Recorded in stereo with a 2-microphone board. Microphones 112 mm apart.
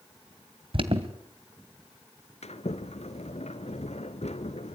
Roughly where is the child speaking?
No child speaking in this recording.